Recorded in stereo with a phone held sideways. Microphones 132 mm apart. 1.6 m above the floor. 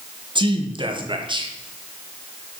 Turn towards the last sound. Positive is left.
turn(degrees=-35)  # may be behind; listen again after turning